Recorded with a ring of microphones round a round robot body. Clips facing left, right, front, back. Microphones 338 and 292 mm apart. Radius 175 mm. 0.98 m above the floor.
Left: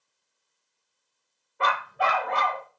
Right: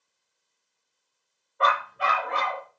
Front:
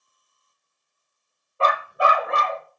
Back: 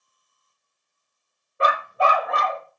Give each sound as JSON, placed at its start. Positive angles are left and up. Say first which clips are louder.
{"t": 1.6, "sound": "a dog barking", "louder": "even, even", "azimuth_deg": 120, "distance_m": 0.7}